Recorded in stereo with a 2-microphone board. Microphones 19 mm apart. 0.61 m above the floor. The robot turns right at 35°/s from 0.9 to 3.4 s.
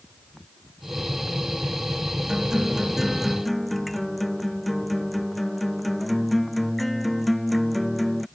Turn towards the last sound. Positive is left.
turn(degrees=5)